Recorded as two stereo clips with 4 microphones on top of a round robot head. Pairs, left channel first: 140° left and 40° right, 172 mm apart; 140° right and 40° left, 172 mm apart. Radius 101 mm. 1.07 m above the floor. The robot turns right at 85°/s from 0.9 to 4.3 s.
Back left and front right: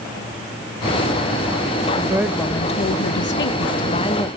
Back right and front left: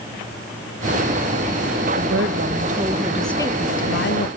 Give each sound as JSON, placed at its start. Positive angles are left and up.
{"t": 1.9, "sound": "a woman speaking", "azimuth_deg": 20, "distance_m": 1.5}